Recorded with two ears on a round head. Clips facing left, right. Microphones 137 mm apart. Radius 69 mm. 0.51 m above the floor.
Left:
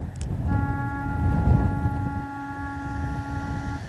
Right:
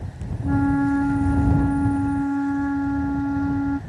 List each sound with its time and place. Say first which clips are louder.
0.4 s a flute: right 10 dB; 45° right (ahead or behind)